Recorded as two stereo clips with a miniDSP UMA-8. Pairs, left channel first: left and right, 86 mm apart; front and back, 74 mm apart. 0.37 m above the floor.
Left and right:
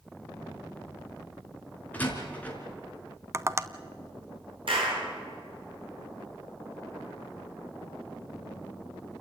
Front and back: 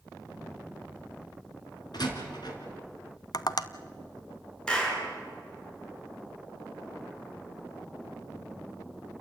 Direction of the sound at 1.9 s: 20° left.